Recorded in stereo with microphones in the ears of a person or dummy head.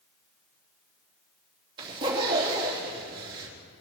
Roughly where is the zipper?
Right.